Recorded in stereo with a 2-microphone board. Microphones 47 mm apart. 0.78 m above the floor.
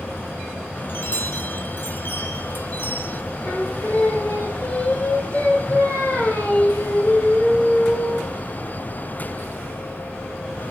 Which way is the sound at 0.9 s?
45° left (ahead or behind).